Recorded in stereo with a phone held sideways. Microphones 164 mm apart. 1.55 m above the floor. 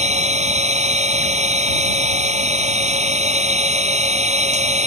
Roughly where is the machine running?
Right.